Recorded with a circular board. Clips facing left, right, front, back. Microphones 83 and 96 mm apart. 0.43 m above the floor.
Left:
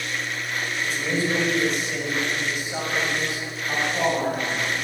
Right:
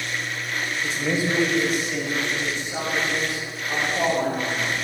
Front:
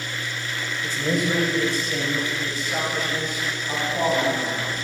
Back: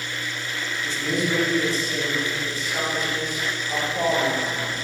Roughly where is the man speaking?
Ahead right.